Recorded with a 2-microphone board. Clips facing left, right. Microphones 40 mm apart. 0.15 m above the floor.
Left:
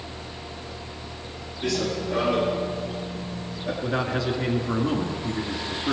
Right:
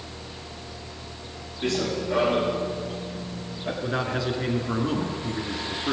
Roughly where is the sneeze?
No sneeze in this recording.